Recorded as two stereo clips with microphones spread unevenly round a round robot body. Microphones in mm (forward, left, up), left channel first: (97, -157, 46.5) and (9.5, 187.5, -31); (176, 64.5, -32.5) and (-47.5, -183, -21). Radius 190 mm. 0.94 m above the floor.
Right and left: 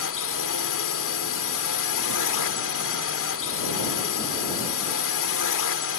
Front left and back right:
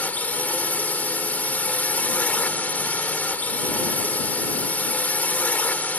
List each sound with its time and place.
0.0 s a drone: 35° right